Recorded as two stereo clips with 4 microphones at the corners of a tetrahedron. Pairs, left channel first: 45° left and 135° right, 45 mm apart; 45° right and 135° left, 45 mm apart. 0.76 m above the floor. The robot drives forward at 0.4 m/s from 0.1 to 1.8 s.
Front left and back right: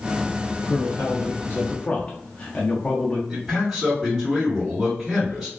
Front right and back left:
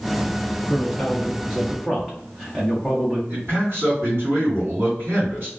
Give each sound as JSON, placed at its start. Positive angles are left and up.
{"t": 0.7, "sound": "a man speaking", "azimuth_deg": 25, "distance_m": 0.7}
{"t": 3.3, "sound": "a man speaking", "azimuth_deg": 145, "distance_m": 1.8}